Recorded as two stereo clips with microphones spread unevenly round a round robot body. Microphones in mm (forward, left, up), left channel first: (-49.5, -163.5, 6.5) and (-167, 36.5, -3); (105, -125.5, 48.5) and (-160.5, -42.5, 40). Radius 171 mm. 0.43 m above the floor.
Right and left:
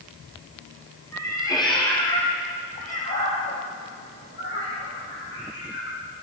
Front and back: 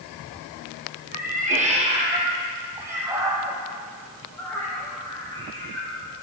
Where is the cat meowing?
135° right, 3 m; by 6.0 s 90° right, 4.5 m.